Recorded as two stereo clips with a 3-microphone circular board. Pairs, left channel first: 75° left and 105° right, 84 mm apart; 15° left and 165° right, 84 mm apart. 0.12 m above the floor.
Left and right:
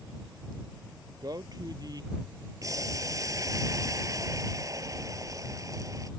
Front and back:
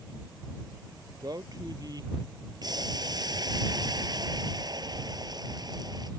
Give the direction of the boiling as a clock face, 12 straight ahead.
5 o'clock.